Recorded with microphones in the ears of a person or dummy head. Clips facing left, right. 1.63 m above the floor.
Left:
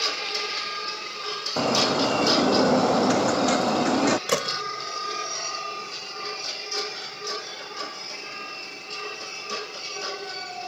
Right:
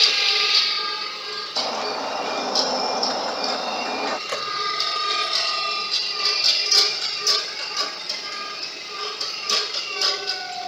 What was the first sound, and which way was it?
A bird, 40° left (ahead or behind).